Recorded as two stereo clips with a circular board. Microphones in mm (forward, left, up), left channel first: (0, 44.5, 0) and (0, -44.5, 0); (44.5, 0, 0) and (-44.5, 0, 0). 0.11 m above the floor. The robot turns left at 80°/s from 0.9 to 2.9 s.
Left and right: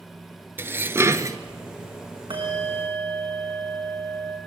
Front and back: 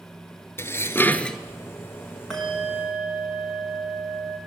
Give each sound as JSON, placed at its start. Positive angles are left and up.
{"t": 0.6, "sound": "dishes clattering", "azimuth_deg": -40, "distance_m": 1.1}
{"t": 2.3, "sound": "a bell", "azimuth_deg": -85, "distance_m": 5.5}